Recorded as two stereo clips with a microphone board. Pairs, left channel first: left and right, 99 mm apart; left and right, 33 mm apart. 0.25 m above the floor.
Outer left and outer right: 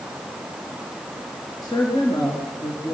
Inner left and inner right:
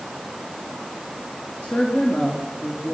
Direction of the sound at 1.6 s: 40° left (ahead or behind).